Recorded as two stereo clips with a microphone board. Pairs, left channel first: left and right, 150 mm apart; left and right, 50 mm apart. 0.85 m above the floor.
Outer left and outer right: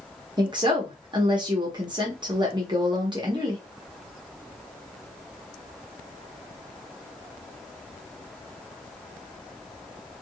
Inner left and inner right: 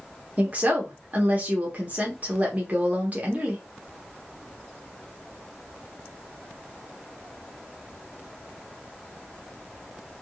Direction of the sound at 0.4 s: 30° right (ahead or behind).